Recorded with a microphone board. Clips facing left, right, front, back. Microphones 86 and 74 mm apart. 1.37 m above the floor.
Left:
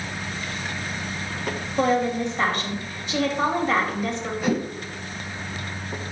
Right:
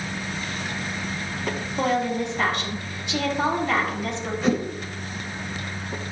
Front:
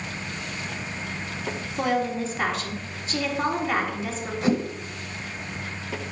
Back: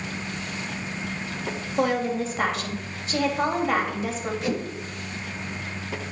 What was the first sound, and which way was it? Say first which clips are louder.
A woman speaking: left 2 dB, back 1 dB; 145° left.